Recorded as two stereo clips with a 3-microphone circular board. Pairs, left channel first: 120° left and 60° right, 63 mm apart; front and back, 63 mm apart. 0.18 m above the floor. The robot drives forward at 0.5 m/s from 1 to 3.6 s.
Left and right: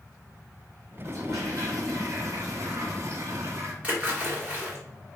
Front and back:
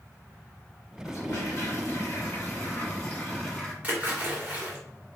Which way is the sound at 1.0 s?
30° right.